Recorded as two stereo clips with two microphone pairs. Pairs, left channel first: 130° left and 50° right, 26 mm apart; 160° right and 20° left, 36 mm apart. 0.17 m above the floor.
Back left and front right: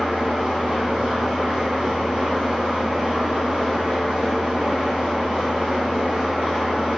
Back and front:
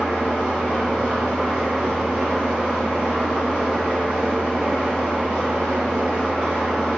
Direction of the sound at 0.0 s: 35° right.